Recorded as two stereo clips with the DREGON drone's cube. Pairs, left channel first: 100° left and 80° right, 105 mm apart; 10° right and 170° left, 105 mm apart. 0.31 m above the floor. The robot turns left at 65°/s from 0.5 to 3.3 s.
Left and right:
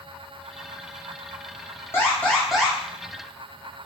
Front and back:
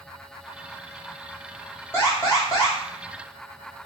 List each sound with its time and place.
1.9 s an alarm: 45° left, 1.3 m; by 2.8 s 10° right, 1.3 m